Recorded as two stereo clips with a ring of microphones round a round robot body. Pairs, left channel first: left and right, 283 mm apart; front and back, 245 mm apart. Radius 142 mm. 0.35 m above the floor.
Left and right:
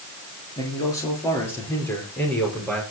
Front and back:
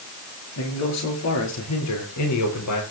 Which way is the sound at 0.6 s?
10° left.